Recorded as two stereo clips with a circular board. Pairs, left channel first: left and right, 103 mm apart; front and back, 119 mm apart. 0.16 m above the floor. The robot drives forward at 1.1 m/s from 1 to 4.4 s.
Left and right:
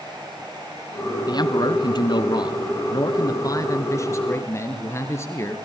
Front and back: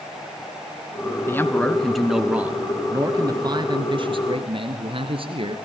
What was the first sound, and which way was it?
A man speaking, 60° left.